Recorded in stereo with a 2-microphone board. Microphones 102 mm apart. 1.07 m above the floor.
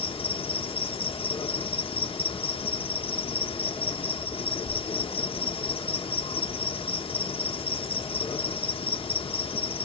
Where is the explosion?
No explosion in this recording.